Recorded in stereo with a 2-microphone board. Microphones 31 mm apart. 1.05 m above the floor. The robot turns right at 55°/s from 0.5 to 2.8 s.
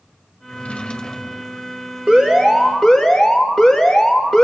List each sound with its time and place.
0.5 s a drawer: 125° left, 2 m; by 1.7 s 170° right, 2 m
2.1 s an alarm: 40° right, 6.5 m; by 4.4 s straight ahead, 6.5 m